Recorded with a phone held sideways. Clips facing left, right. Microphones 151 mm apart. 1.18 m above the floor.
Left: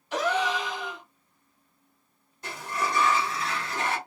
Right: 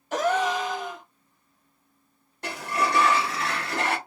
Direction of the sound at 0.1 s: 45° right (ahead or behind).